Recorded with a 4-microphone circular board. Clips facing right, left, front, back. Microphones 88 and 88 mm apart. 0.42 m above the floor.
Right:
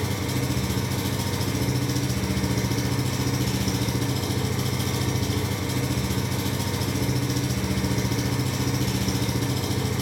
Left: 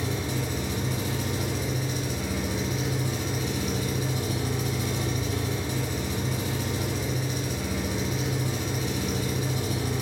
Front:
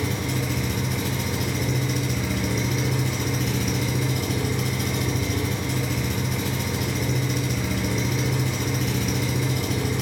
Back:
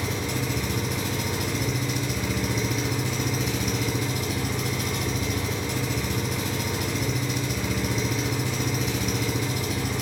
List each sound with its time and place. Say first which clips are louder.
0.0 s an engine running: right 2 dB, front 2 dB; 85° right, 1.2 m